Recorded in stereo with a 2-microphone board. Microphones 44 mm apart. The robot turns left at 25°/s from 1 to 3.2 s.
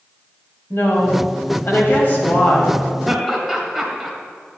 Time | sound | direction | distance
0.7 | a woman speaking | 75° left | 2.5 m
3.1 | laughter | 5° left (ahead or behind) | 1.9 m